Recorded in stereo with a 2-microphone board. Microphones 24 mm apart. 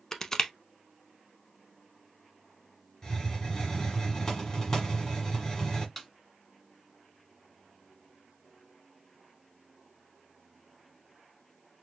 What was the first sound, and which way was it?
Crushing, 20° left (ahead or behind).